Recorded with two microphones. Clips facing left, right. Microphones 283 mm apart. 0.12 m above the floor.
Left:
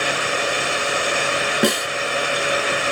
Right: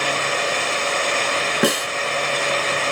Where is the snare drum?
Centre (ahead or behind), 0.5 m.